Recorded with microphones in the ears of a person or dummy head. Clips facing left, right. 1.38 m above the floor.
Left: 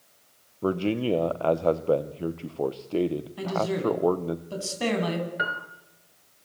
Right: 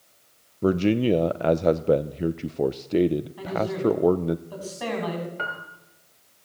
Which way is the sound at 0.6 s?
20° right (ahead or behind).